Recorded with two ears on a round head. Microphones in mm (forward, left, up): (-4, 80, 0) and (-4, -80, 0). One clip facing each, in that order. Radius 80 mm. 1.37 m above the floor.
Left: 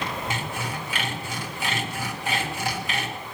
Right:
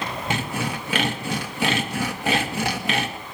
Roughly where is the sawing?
Right.